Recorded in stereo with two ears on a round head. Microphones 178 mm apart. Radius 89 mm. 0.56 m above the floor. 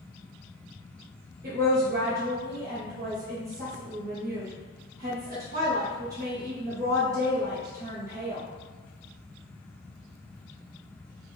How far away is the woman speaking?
About 0.9 m.